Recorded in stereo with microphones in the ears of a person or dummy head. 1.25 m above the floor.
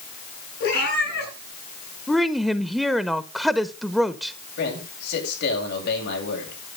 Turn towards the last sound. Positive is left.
turn(degrees=60)  # may be behind; listen again after turning